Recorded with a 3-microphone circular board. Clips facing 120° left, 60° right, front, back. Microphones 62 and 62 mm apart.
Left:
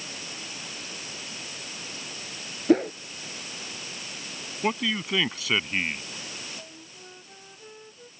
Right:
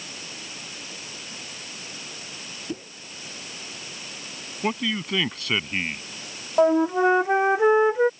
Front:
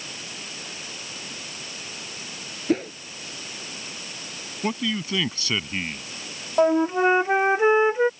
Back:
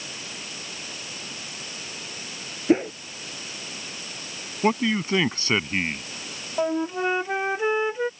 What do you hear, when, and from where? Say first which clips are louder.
2.7 s a whoosh: left 15 dB, back 4 dB; 115° left
4.6 s a man speaking: right 1 dB, back 5 dB; 155° right
6.6 s a flute: right 29 dB, front 6 dB; 65° right